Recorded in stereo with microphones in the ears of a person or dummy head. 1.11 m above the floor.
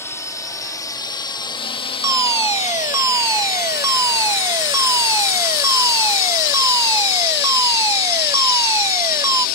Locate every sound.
0.0 s a drone: 15° left (ahead or behind); by 9.6 s 50° left (ahead or behind)
2.0 s a fire alarm: 15° right (ahead or behind)